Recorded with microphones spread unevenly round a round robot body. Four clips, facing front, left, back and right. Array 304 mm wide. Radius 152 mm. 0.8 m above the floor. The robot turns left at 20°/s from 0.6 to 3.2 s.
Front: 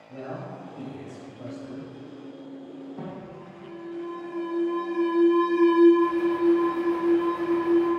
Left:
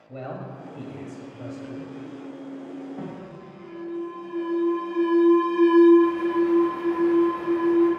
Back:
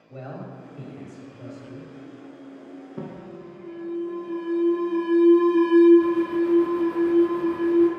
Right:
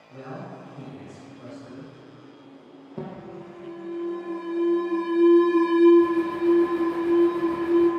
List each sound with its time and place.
0.1 s a man speaking: 70° left, 1.2 m; by 1.9 s 45° left, 1.2 m
3.0 s an alarm: 135° right, 0.8 m; by 7.9 s 140° right, 0.8 m